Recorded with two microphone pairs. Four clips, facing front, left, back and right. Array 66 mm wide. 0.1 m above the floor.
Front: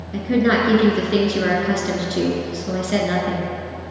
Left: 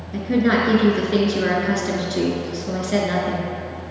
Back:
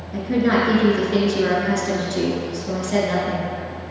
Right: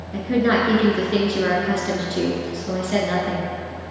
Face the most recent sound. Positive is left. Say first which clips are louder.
# even, front 1 dB
turn(degrees=15)